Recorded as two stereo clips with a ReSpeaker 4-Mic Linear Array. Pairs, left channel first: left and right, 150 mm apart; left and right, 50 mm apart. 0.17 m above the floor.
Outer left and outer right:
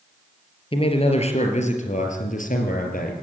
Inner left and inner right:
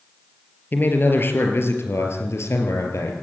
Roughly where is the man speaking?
Left.